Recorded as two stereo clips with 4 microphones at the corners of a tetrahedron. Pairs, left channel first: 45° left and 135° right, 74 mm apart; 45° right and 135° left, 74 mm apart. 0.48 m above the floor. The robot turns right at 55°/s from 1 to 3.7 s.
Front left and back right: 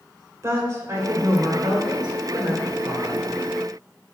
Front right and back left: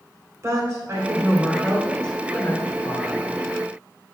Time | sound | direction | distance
0.4 | a woman speaking | straight behind | 2 m